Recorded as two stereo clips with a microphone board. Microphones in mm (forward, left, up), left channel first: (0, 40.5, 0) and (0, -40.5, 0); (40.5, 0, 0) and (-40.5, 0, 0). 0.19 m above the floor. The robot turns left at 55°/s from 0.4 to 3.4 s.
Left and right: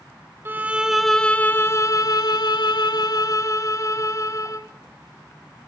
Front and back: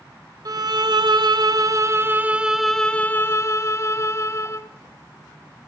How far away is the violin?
About 0.6 m.